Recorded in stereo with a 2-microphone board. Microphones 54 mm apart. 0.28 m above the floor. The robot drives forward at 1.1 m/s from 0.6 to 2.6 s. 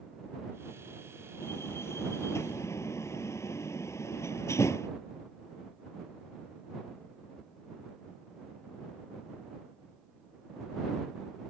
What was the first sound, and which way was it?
A door slam, 50° left (ahead or behind).